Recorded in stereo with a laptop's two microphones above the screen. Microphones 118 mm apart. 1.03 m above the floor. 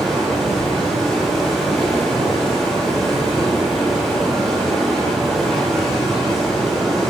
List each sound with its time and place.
0.0 s running water: centre (ahead or behind), 3 m